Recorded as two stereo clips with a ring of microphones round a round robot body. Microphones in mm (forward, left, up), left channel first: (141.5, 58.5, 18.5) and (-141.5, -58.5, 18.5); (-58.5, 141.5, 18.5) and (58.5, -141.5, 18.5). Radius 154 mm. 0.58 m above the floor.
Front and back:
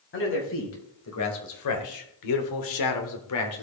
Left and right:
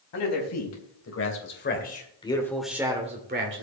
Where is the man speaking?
75° left, 4.5 m; by 3.6 s 20° right, 2 m.